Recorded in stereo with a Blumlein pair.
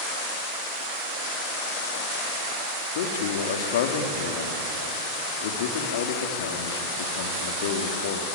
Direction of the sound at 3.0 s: 55° left.